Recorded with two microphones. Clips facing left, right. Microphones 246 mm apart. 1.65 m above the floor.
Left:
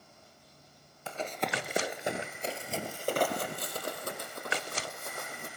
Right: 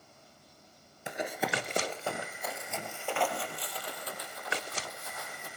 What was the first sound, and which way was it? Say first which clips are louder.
Running footsteps: right 1 dB; 20° right (ahead or behind).